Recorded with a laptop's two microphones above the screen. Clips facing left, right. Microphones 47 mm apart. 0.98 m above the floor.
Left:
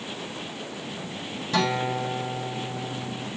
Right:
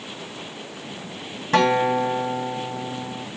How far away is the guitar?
About 1.9 m.